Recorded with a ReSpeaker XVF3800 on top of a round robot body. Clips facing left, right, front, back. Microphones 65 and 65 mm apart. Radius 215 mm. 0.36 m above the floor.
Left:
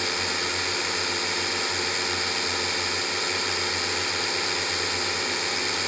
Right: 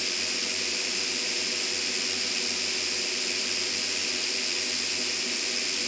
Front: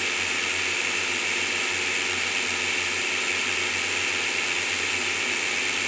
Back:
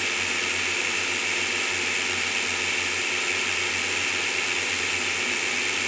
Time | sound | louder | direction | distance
0.0 | a drone | left 7 dB, even | 90° left | ?